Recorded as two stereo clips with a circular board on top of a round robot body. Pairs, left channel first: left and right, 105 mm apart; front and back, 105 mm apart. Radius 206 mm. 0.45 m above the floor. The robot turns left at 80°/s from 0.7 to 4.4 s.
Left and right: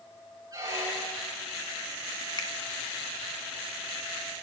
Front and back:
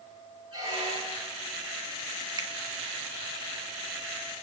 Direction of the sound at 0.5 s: 145° right.